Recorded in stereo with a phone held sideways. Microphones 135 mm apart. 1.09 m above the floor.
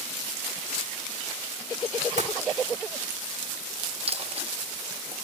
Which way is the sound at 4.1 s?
45° right (ahead or behind).